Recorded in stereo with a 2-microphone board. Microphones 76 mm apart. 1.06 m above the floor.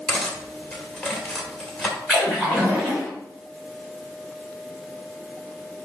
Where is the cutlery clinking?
5° left (ahead or behind), 2 m.